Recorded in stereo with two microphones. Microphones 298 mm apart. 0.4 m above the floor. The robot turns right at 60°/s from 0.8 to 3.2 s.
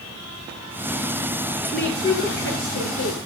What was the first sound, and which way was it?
A woman speaking, 5° right.